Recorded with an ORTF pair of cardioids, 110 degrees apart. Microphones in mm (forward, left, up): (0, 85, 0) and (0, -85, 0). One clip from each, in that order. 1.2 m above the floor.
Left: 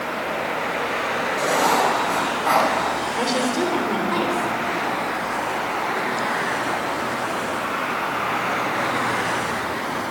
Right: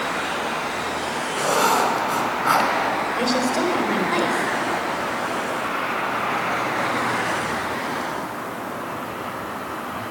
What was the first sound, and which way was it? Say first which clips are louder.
Writing: right 1 dB; 5° right.